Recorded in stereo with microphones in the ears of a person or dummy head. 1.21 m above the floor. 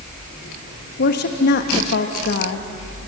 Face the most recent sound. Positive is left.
turn(degrees=55)  # may be behind; listen again after turning